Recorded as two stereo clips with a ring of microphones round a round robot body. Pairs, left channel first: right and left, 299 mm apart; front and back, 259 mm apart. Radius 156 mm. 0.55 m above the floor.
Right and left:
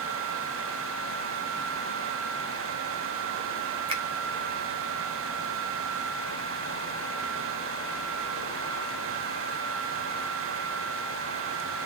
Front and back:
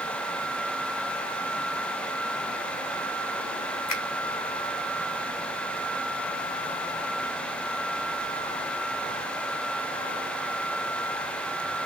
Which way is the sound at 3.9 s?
20° left.